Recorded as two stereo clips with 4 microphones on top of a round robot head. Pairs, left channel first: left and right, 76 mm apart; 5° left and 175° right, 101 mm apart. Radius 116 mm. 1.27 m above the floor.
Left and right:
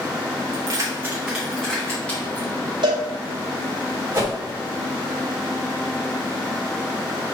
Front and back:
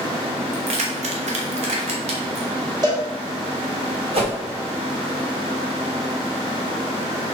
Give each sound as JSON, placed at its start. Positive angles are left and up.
{"t": 0.5, "sound": "keys jangling", "azimuth_deg": -130, "distance_m": 0.8}
{"t": 2.8, "sound": "a cowbell", "azimuth_deg": -120, "distance_m": 1.9}
{"t": 4.1, "sound": "a whoosh", "azimuth_deg": -155, "distance_m": 2.5}